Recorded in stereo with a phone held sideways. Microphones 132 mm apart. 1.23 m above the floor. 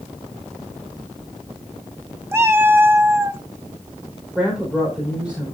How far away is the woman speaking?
About 4.5 m.